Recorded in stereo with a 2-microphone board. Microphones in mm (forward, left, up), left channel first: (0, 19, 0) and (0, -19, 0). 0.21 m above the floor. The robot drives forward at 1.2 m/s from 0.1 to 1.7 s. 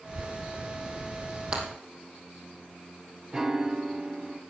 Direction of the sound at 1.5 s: 30° right (ahead or behind).